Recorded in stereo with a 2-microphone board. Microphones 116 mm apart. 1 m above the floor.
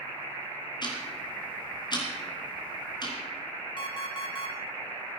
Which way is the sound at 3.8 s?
45° left (ahead or behind).